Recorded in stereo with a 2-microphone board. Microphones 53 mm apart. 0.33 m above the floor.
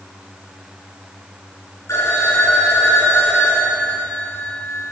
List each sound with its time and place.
1.9 s a phone ringing: 65° left (ahead or behind), 2 m